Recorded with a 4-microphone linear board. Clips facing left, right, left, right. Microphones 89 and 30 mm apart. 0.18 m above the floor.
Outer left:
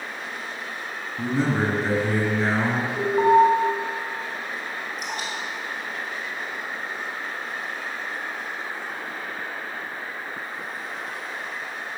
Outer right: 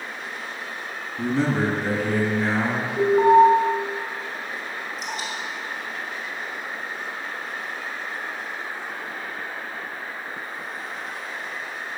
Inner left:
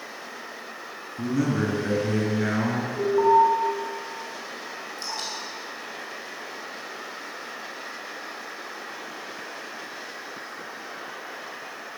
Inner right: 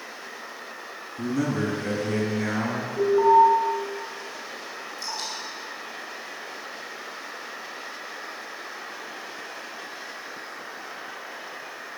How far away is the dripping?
About 2.5 m.